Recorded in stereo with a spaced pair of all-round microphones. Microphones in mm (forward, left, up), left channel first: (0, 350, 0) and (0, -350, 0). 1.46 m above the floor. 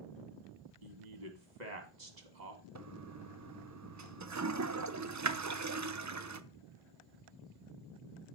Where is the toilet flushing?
25° right (ahead or behind), 0.6 m.